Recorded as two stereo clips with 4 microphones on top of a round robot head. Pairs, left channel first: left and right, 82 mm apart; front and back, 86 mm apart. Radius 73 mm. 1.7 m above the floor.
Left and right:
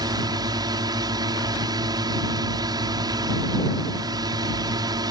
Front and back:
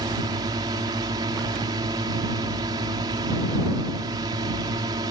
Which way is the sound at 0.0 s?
125° right.